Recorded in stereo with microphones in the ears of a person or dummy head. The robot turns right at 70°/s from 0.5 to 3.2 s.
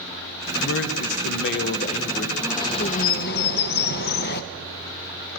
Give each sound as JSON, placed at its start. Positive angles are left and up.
{"t": 0.6, "sound": "a man speaking", "azimuth_deg": 50, "distance_m": 1.2}
{"t": 2.4, "sound": "a bird", "azimuth_deg": 5, "distance_m": 1.0}